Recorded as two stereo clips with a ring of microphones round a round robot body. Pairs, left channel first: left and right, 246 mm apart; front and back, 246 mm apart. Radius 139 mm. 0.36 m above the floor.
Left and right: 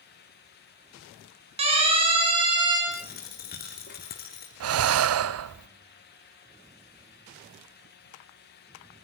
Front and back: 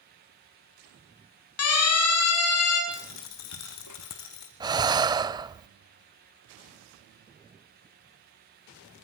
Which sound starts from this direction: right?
Breathing, at 4.6 s.